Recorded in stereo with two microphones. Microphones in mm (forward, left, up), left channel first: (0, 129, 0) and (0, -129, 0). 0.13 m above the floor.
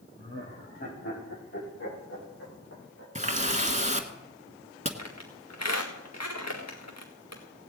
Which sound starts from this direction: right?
A running tap, at 3.1 s.